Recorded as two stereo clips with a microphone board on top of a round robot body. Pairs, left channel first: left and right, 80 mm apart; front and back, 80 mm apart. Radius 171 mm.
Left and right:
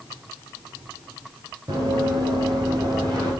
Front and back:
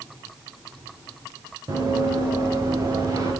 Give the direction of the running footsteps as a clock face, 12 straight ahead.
4 o'clock.